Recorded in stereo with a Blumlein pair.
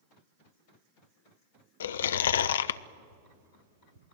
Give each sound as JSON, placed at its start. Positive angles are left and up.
{"t": 1.8, "sound": "chewing", "azimuth_deg": 65, "distance_m": 0.6}
{"t": 3.1, "sound": "tapping", "azimuth_deg": -65, "distance_m": 2.0}